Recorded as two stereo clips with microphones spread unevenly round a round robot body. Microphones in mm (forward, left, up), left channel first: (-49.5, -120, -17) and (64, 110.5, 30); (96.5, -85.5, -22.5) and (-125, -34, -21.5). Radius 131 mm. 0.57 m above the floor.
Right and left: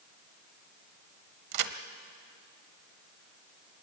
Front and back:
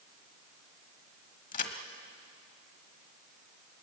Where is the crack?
50° left, 1.2 m.